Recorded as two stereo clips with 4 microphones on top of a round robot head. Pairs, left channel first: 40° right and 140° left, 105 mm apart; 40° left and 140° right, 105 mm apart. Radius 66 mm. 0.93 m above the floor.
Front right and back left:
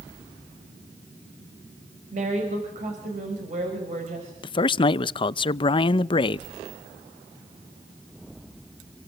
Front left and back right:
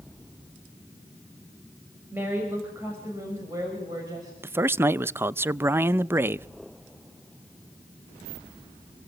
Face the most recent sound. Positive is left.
turn(degrees=-75)